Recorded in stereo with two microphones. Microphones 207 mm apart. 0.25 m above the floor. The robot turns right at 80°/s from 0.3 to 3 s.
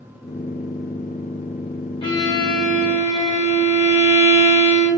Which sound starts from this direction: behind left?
A violin, at 2.0 s.